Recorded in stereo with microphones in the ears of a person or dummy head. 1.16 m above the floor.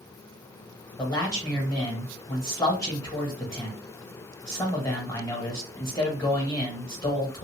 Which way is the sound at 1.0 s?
20° left (ahead or behind).